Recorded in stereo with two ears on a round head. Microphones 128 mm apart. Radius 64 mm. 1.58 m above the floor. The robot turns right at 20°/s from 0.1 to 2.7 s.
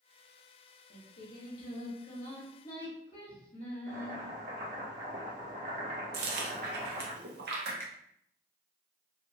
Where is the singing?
100° left, 0.9 m; by 4.2 s 135° left, 0.9 m.